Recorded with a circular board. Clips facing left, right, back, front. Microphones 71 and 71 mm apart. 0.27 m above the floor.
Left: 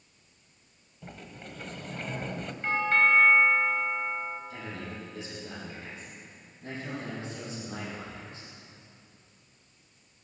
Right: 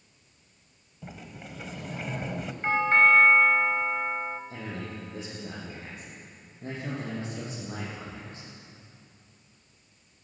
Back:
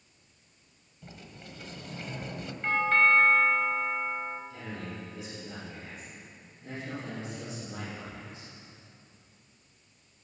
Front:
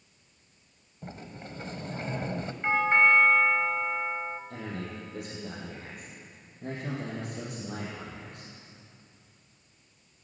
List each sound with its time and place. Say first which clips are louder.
1.0 s a sliding door: right 1 dB, front 5 dB; 10° right, 1.2 m
2.6 s a doorbell: right 3 dB, front 1 dB; 50° right, 2 m
4.5 s a man speaking: right 2 dB, front 2 dB; 35° right, 8.5 m